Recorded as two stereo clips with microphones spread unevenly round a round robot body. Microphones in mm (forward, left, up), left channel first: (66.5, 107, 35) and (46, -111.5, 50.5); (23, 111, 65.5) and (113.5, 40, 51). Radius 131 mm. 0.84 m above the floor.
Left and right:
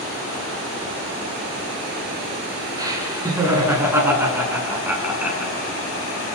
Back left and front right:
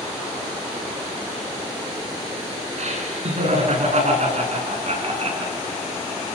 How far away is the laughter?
About 10 m.